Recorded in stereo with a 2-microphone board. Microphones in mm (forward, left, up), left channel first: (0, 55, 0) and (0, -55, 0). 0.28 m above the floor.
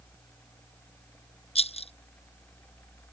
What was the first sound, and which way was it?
A rattle, 65° left (ahead or behind).